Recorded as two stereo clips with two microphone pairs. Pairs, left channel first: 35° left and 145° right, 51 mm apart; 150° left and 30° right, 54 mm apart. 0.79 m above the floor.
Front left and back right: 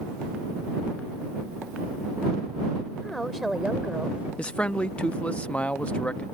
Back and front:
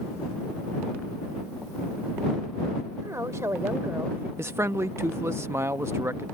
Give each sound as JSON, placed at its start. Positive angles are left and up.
{"t": 3.0, "sound": "a woman speaking", "azimuth_deg": -40}
{"t": 4.4, "sound": "a man speaking", "azimuth_deg": -20}